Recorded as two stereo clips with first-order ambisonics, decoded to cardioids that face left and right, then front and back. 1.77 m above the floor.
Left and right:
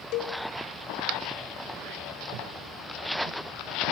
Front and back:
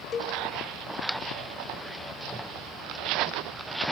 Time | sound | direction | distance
0.1 | a cowbell | 60° left | 1.7 m